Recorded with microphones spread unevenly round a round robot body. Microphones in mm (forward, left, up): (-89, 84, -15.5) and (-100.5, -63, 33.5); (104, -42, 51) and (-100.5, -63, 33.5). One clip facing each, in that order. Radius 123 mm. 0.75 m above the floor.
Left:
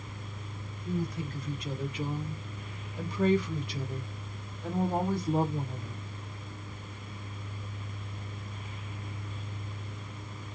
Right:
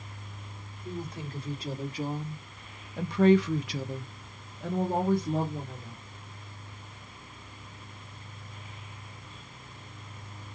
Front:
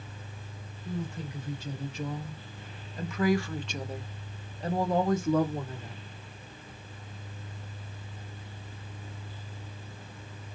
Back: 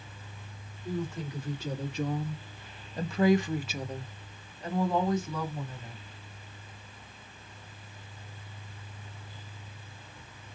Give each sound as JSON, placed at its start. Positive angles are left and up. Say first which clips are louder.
{"t": 0.8, "sound": "a woman speaking", "louder": "left 4 dB, back 2 dB", "azimuth_deg": -165, "distance_m": 1.6}